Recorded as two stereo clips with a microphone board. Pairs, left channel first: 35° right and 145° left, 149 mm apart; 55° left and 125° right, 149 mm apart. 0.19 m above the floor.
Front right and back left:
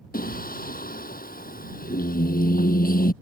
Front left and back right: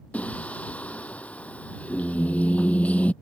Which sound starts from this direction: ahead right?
Singing, at 0.1 s.